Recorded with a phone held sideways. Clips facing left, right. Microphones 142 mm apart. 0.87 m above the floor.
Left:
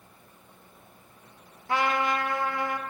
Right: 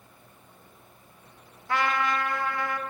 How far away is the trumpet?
About 0.9 m.